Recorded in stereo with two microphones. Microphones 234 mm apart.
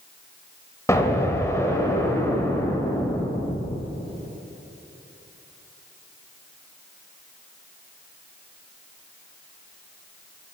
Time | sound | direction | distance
0.9 | an explosion | 10° left (ahead or behind) | 0.9 m